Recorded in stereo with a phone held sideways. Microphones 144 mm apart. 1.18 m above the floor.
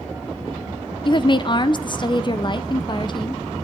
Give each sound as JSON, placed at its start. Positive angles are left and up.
{"t": 1.1, "sound": "a woman speaking", "side_deg": 35, "distance_m": 0.6}